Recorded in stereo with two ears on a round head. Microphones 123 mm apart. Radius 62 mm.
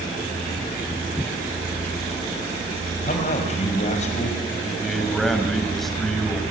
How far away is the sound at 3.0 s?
About 5.5 m.